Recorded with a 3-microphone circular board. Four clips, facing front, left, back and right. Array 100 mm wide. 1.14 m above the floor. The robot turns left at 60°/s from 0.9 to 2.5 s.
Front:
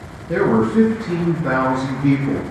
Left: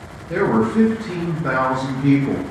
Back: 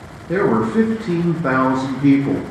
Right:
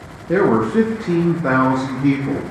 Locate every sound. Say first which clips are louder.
0.3 s a man speaking: right 3 dB, even; 110° right, 0.7 m; by 2.4 s 160° left, 0.7 m